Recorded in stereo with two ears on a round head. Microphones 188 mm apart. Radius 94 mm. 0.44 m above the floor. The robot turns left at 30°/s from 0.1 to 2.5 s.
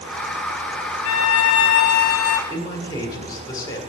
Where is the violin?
75° left, 0.6 m; by 2.4 s 35° left, 0.6 m.